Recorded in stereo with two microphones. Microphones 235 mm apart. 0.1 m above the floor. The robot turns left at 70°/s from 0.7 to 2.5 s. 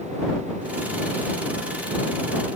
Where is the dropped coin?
I don't hear a dropped coin.